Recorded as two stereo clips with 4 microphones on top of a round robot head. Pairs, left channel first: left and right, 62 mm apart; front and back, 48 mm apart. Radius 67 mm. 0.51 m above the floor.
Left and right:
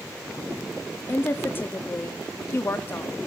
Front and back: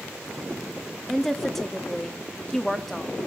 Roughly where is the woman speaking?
Left.